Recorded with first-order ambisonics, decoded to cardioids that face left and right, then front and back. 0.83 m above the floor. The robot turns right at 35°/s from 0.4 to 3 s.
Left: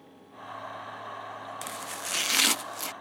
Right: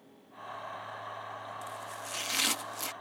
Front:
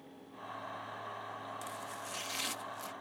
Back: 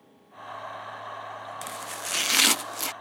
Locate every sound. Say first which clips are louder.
1.6 s chopping: left 4 dB, back 8 dB; 125° left; by 2.9 s 170° left